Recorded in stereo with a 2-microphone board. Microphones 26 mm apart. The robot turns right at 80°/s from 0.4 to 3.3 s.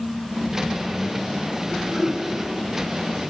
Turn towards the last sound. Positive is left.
turn(degrees=-20)